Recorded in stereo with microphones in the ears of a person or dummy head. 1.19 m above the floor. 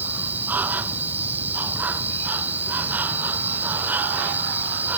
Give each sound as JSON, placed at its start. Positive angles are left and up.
{"t": 0.0, "sound": "an insect", "side_deg": -10}